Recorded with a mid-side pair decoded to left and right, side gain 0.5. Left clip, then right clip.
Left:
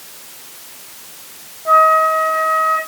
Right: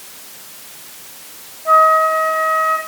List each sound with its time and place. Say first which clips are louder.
1.6 s a flute: even; 5° left, 7.5 m